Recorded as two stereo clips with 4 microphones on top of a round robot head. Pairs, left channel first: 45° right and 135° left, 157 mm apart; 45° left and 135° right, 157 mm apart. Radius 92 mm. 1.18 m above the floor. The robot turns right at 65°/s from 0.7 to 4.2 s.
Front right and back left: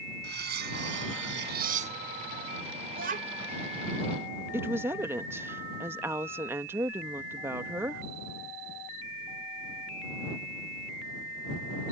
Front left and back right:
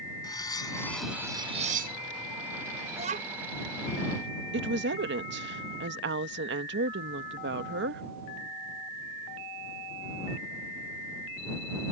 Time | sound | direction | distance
0.2 | cutlery clinking | 110° left | ?
2.9 | a child speaking | 165° left | ?
4.5 | a woman speaking | 145° right | ?